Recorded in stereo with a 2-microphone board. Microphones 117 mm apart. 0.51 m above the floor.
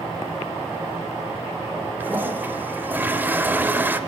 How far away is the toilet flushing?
About 0.7 m.